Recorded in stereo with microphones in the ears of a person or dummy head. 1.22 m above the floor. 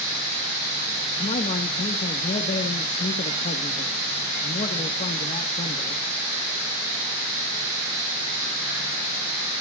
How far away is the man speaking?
About 1.7 m.